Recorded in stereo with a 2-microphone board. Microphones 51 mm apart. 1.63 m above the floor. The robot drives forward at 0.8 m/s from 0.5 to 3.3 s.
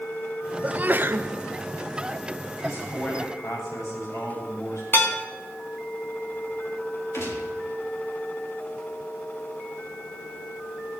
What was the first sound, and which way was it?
A sneeze, 30° right (ahead or behind).